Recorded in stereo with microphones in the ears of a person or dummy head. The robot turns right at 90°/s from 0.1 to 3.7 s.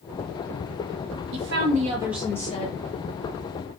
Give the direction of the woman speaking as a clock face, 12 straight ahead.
3 o'clock.